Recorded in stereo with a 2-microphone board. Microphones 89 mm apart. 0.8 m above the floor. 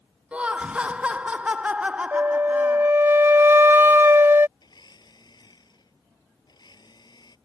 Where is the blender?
55° left (ahead or behind).